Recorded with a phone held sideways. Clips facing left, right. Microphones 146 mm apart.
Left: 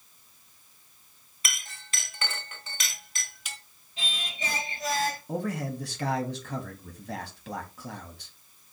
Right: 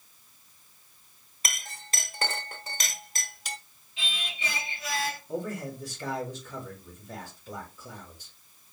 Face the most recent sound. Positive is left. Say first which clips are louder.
# left 2 dB
turn(degrees=75)  # may be behind; listen again after turning